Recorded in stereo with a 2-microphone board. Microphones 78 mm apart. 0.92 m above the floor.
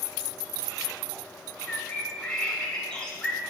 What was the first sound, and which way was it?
A bird, 15° left (ahead or behind).